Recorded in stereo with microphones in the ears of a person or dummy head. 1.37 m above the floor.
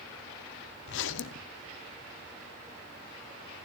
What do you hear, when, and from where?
0.9 s a zipper: 60° left (ahead or behind), 0.6 m